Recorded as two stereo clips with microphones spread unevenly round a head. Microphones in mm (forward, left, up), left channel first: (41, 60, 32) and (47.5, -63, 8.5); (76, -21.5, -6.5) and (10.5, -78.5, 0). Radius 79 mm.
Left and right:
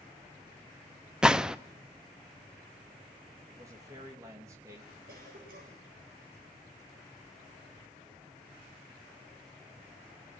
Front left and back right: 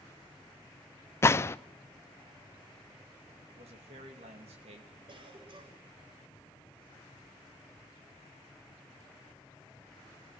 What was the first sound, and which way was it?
A gunshot, 10° left.